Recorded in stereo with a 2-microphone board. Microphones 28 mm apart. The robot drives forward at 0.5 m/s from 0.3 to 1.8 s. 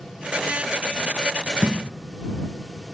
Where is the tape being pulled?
40° right (ahead or behind), 1.6 m.